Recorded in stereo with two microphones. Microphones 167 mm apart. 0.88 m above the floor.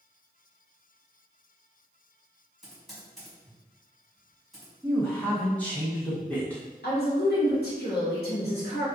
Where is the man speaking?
10° left (ahead or behind), 0.6 m.